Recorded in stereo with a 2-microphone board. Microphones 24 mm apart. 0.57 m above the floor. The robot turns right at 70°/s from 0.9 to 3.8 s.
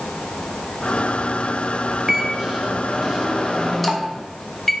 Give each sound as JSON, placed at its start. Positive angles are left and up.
{"t": 2.1, "sound": "a microwave", "azimuth_deg": -105, "distance_m": 0.6}